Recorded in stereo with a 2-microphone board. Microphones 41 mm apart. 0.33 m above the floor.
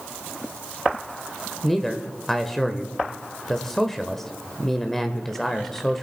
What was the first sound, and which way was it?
A man speaking, 10° left (ahead or behind).